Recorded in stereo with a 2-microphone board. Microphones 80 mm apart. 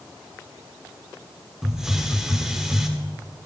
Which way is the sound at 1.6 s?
5° right (ahead or behind).